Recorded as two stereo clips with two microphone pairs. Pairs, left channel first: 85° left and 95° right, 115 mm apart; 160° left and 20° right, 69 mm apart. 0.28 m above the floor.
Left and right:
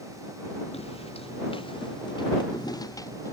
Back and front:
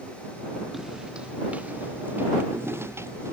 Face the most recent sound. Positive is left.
turn(degrees=25)